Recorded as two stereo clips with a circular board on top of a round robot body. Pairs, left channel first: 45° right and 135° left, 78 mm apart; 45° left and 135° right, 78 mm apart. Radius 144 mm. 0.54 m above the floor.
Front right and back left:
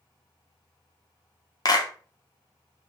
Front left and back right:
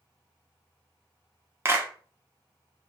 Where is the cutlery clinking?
I don't hear cutlery clinking.